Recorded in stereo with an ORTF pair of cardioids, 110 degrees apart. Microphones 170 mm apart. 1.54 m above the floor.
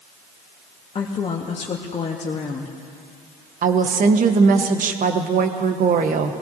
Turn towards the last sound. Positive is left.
turn(degrees=-50)